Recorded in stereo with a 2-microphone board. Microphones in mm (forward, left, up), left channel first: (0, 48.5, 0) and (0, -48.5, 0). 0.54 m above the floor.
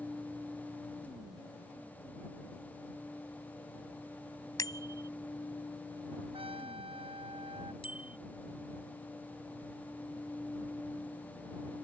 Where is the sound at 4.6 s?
40° left (ahead or behind).